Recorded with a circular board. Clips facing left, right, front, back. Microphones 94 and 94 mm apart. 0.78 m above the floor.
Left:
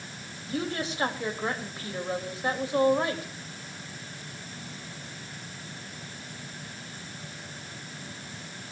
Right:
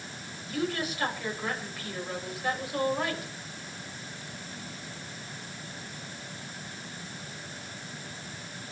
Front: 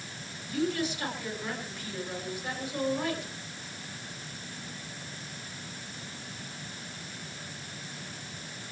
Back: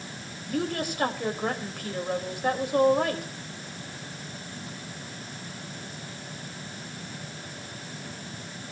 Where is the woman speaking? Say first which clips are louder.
Even, back 1 dB; 150° left, 4 m.